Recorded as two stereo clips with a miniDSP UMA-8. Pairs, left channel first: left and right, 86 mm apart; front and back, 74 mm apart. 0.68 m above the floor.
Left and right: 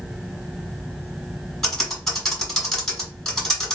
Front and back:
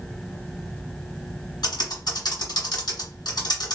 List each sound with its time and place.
1.6 s typing on a keyboard: 10° left, 1.5 m